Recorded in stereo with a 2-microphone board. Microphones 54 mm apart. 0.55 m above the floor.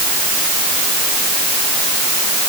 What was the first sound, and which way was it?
Only background noise.